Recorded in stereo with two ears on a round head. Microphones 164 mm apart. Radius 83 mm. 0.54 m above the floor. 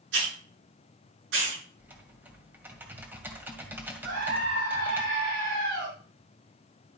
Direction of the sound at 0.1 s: 80° right.